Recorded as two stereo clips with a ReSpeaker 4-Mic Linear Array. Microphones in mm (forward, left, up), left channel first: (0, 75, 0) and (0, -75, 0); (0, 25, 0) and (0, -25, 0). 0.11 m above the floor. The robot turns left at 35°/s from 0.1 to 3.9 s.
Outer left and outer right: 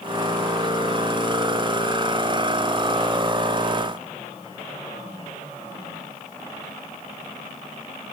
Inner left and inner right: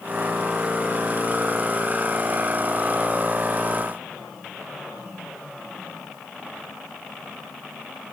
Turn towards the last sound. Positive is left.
No sound to turn to.